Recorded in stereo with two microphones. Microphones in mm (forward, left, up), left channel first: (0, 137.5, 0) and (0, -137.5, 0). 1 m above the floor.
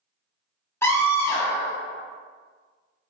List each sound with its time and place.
0.8 s a scream: 10° left (ahead or behind), 1.3 m